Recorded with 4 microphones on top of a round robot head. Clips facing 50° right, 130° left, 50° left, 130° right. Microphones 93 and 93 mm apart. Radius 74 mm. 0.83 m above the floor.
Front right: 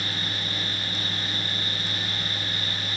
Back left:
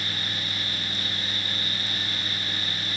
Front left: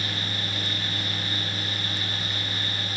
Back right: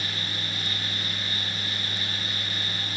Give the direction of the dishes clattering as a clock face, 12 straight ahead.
No dishes clattering in this recording.